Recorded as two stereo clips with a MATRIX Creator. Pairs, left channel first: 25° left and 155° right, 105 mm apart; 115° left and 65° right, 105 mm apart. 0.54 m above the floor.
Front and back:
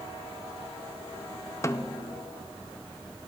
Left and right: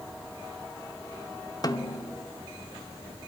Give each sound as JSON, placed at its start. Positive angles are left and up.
{"t": 1.6, "sound": "a snare drum", "azimuth_deg": 75, "distance_m": 0.8}